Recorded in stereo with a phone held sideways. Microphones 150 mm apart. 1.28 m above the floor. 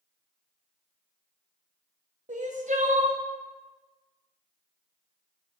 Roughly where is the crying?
Right.